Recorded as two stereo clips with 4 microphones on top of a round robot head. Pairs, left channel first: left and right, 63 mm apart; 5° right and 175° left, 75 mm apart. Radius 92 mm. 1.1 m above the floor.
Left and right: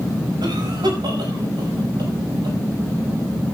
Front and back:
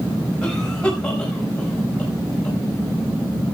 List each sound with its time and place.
0.4 s a cough: 85° right, 6 m